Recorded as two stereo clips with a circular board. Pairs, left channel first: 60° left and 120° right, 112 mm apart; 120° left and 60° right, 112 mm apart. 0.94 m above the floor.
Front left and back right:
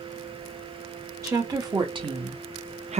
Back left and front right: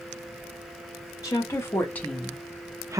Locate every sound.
1.2 s a woman speaking: straight behind, 1.0 m; by 3.0 s 120° right, 0.7 m